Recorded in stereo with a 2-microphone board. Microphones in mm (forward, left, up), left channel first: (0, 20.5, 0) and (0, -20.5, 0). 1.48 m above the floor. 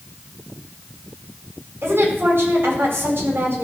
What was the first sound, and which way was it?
A woman speaking, 75° right (ahead or behind).